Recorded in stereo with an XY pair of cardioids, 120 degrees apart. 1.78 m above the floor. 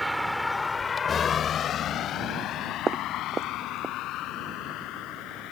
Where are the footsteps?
35° right.